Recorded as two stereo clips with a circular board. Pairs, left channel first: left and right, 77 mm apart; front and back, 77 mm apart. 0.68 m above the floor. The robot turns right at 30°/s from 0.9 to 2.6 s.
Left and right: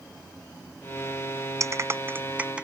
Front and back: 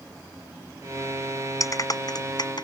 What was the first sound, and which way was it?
A clap, 45° right.